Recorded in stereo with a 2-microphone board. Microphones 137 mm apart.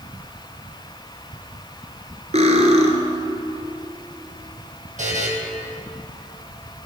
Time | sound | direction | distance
2.3 | cutlery clinking | 55° right (ahead or behind) | 1.4 m
5.0 | a buzzer | 65° right (ahead or behind) | 2 m